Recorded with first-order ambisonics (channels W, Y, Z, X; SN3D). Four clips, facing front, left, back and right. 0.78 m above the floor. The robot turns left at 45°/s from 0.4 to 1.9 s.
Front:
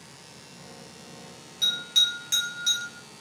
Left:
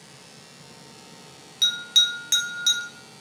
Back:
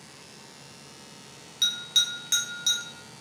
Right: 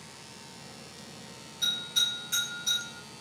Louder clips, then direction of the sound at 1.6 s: Left 8 dB, front 2 dB; 125° left.